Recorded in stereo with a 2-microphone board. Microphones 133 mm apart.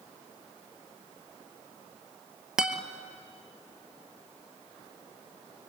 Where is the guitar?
5° right (ahead or behind), 1.1 m.